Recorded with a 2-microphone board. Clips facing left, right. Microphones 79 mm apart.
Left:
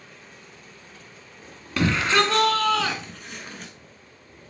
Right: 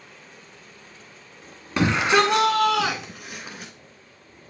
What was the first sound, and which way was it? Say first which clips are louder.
A shout: right 2 dB; 20° right (ahead or behind).